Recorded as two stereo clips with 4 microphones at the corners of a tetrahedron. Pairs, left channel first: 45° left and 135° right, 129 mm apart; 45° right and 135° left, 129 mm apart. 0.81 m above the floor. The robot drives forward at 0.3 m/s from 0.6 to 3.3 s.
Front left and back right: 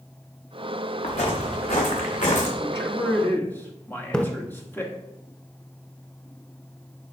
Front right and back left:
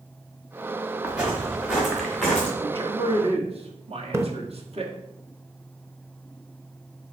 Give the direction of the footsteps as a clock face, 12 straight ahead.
10 o'clock.